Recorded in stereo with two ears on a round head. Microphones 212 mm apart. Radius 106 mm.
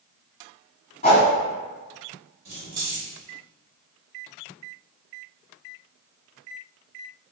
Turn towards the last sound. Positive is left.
turn(degrees=-55)  # may be behind; listen again after turning